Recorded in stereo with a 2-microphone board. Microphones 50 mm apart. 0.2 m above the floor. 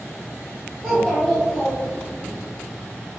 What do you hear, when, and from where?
0.8 s a child speaking: 5° right (ahead or behind), 1.2 m